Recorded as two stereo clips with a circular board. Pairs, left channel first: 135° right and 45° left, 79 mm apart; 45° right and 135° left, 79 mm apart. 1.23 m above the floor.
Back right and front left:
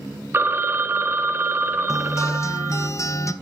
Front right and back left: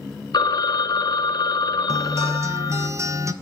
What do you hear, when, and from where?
0.3 s a phone ringing: 15° right, 0.7 m
1.9 s a guitar: 175° right, 0.7 m